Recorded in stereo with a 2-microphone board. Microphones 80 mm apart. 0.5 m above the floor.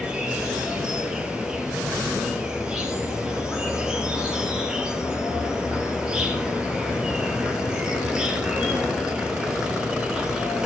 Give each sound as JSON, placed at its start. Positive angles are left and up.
{"t": 0.0, "sound": "an insect", "side_deg": -10, "distance_m": 3.0}